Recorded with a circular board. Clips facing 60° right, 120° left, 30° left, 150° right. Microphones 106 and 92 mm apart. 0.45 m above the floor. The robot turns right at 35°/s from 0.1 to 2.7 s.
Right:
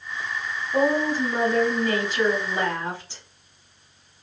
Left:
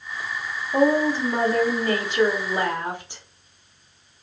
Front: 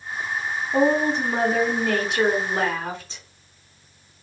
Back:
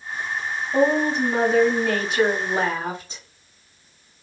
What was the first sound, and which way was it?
A woman speaking, 90° left.